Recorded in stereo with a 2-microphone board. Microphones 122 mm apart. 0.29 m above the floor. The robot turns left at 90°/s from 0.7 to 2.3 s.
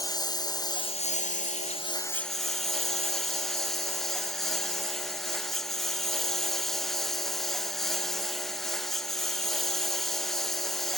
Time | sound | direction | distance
0.0 | a lawn mower | 145° left | ?